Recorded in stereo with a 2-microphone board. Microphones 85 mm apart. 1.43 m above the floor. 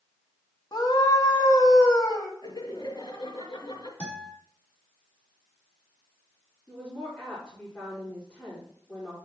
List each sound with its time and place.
0.7 s a scream: 55° left (ahead or behind), 2 m
2.4 s laughter: 60° left (ahead or behind), 2 m
4.0 s a guitar: 15° left (ahead or behind), 3.5 m
6.7 s a woman speaking: 5° left (ahead or behind), 5 m